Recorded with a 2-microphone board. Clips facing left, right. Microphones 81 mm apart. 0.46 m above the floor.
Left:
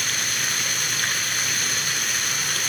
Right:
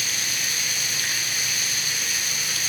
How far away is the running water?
About 0.7 m.